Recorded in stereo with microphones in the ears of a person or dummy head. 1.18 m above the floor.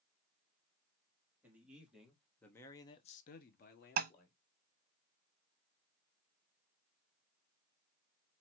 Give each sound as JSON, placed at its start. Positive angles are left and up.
{"t": 1.4, "sound": "a man speaking", "side_deg": -5, "distance_m": 2.0}
{"t": 4.0, "sound": "tapping", "side_deg": -50, "distance_m": 0.6}